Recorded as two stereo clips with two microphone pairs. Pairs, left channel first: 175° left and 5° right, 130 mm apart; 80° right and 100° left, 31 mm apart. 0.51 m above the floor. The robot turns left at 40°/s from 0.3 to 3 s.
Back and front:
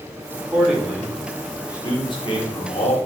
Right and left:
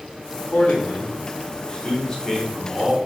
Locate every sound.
0.5 s a man speaking: 85° right, 1.3 m; by 3.0 s straight behind, 1.3 m